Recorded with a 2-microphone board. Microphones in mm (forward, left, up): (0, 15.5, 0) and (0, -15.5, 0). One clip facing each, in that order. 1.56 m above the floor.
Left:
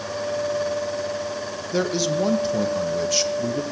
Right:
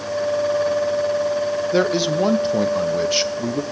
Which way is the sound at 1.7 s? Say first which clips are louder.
Right 2 dB; 25° right (ahead or behind).